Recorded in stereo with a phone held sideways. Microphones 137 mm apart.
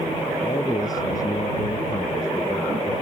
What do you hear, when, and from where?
0.4 s a man speaking: 25° left (ahead or behind)